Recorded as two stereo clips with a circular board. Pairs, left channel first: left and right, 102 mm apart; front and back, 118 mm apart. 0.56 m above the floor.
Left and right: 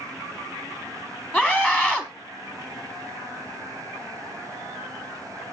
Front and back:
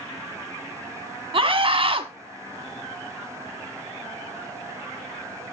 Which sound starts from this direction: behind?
A scream, at 1.3 s.